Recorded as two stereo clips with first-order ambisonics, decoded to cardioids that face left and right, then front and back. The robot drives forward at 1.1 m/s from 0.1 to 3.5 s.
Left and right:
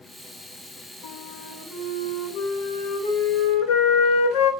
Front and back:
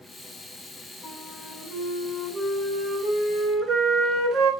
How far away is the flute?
About 3 m.